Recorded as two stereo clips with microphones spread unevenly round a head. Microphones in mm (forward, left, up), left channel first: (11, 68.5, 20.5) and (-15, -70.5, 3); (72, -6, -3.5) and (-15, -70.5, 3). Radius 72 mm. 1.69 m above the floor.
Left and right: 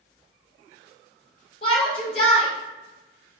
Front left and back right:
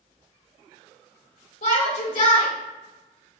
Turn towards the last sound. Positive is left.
turn(degrees=25)